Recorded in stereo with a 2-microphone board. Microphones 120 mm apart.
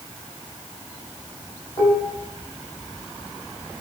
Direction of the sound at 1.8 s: 50° left (ahead or behind).